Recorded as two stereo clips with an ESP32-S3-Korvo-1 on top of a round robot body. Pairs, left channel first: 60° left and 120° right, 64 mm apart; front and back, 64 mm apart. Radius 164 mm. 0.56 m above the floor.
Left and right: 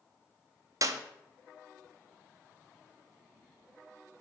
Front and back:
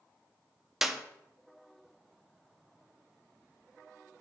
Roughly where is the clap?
Right.